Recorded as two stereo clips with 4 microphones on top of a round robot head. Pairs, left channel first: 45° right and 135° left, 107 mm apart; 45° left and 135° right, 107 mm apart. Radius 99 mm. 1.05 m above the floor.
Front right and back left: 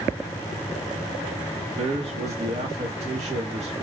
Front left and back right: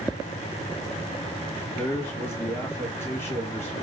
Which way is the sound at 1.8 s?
115° left.